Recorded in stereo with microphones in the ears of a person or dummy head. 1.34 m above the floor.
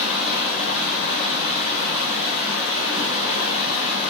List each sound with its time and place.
0.0 s running water: 55° left (ahead or behind), 1.4 m